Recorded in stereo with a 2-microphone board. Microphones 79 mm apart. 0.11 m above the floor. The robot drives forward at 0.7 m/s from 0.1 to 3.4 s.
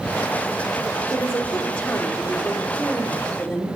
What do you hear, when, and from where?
1.1 s a woman speaking: 15° left (ahead or behind), 2 m; by 3.7 s 10° left (ahead or behind), 3.5 m